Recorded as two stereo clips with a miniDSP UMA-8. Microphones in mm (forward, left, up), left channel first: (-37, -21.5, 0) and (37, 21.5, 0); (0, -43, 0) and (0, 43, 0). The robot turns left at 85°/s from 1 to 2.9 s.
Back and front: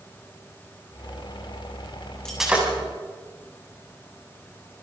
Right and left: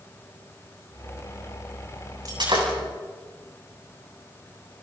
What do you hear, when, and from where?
2.2 s breaking glass: 130° left, 7.5 m; by 2.7 s 95° left, 7.5 m